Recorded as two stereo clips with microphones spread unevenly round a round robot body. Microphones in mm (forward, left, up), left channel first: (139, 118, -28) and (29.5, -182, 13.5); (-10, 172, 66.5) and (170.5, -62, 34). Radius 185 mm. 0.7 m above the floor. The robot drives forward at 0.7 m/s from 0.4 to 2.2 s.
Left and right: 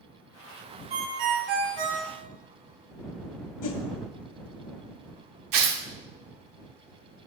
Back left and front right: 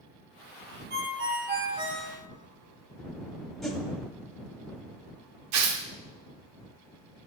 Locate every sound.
0.9 s a ringtone: 110° right, 1.5 m; by 2.1 s 135° right, 1.9 m
3.6 s a whoosh: 40° left, 1.3 m
5.5 s tearing paper: 85° right, 1.6 m